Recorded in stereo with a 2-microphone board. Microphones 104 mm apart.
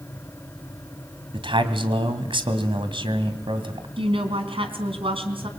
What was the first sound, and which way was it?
A man speaking, 60° right (ahead or behind).